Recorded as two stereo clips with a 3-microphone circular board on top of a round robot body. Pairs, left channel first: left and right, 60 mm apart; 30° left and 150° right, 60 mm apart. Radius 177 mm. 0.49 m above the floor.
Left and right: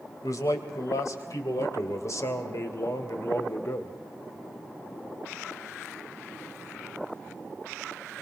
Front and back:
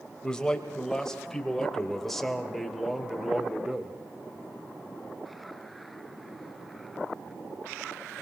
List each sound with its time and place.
0.2 s a man speaking: 110° left, 4 m; by 4.0 s 130° left, 2.5 m